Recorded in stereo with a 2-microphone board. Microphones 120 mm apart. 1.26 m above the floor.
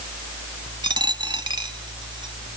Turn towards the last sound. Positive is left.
turn(degrees=-40)  # may be behind; listen again after turning